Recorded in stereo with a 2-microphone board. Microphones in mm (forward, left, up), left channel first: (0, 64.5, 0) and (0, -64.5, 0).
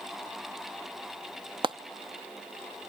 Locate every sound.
1.6 s frying: 40° right (ahead or behind), 0.6 m